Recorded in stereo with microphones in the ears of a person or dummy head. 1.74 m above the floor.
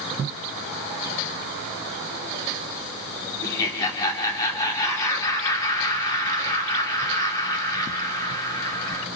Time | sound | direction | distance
3.4 | laughter | 20° left (ahead or behind) | 5.5 m